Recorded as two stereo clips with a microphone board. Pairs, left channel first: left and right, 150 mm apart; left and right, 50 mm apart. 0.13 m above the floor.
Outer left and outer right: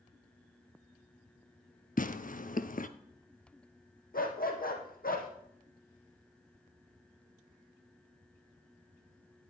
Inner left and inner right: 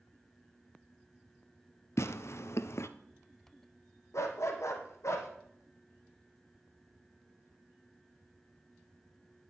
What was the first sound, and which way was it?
Tearing paper, 65° left (ahead or behind).